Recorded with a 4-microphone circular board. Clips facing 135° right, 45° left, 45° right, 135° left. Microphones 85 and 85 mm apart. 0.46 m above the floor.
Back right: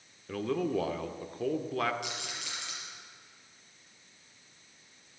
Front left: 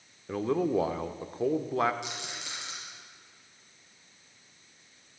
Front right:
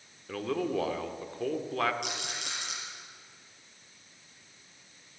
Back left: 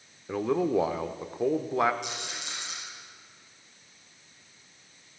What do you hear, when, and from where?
0.3 s a man speaking: 85° left, 0.8 m
2.0 s a rattle: 20° right, 5.5 m